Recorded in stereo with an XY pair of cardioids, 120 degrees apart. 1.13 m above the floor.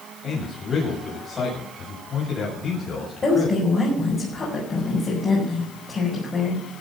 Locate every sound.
0.2 s a man speaking: 35° left, 7 m
3.2 s a woman speaking: 30° left, 6 m